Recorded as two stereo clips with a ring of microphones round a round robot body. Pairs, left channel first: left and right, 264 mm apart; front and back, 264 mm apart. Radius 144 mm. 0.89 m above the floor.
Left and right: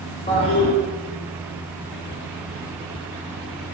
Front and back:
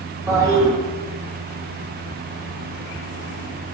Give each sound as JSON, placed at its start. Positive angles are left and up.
{"t": 0.3, "sound": "a toilet flushing", "azimuth_deg": 120, "distance_m": 1.0}